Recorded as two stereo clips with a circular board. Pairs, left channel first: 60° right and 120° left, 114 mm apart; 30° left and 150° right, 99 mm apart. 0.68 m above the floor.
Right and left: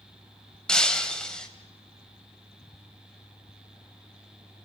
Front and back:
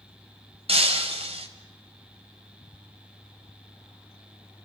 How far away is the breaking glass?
About 2.0 m.